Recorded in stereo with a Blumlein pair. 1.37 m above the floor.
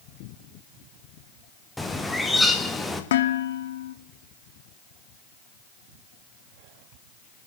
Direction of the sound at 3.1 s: 60° left.